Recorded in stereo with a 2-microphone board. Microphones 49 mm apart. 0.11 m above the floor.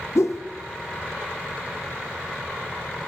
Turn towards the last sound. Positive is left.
turn(degrees=80)